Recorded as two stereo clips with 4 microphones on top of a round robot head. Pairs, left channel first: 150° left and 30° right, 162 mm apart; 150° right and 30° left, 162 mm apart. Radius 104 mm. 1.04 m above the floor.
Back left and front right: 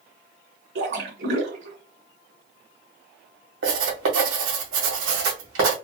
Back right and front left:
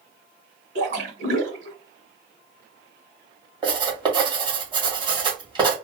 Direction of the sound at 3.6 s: 30° right.